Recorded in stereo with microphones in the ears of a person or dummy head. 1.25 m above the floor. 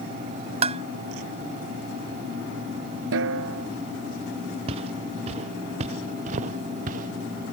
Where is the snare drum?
70° right (ahead or behind).